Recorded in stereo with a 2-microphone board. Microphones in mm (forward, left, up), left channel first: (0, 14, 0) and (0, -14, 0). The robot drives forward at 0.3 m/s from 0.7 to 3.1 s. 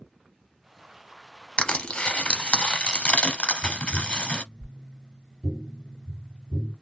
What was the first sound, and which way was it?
Crushing, 35° left (ahead or behind).